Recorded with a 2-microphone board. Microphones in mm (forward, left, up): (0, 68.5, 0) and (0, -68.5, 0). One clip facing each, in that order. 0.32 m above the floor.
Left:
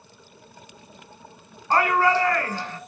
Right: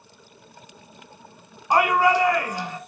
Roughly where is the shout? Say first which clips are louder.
Right 1 dB; centre.